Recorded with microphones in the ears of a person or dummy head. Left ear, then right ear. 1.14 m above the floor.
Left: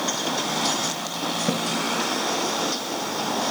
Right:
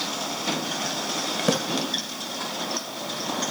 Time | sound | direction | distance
1.5 | a splash | 80° right | ?